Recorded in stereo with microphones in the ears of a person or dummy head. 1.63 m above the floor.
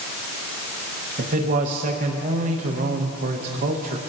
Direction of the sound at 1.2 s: 40° right (ahead or behind).